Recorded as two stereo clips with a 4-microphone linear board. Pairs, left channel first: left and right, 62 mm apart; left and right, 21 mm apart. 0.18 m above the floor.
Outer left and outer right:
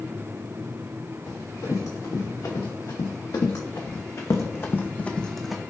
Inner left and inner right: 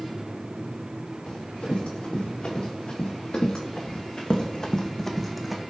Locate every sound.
1.3 s running footsteps: 85° left, 2.5 m; by 5.6 s 5° right (ahead or behind), 0.7 m